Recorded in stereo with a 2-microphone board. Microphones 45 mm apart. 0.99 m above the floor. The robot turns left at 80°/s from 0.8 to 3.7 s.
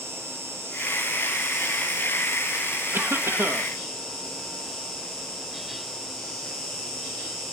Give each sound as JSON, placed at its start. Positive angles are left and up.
{"t": 0.0, "sound": "an insect", "azimuth_deg": -115, "distance_m": 4.5}
{"t": 2.9, "sound": "a cough", "azimuth_deg": -75, "distance_m": 1.6}